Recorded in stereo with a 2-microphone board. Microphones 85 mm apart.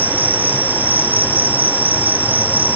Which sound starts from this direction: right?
An insect, at 0.0 s.